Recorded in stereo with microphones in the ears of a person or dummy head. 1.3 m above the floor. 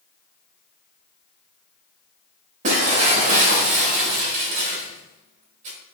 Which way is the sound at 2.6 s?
40° right (ahead or behind).